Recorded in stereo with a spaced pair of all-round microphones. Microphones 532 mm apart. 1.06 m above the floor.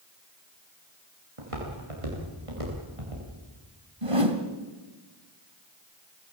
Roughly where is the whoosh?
Right.